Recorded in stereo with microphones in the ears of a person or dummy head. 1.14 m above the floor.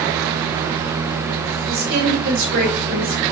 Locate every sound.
1.7 s a woman speaking: 50° right (ahead or behind), 1.8 m; by 3.2 s 80° right, 2 m